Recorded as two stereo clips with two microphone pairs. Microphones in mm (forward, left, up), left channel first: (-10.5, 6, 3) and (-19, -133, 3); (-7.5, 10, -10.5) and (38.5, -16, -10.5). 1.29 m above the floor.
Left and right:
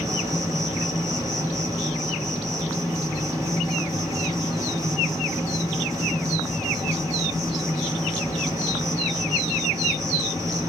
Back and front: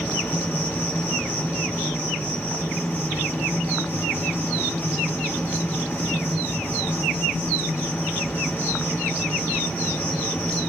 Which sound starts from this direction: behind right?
An insect, at 0.0 s.